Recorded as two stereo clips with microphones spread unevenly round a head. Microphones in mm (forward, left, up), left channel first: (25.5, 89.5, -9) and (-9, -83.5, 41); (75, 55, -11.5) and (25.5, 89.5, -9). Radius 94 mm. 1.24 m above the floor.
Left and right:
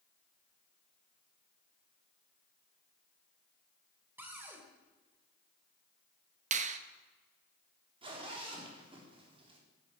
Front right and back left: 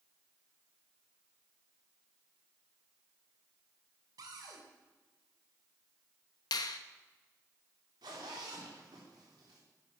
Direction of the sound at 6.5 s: 55° right.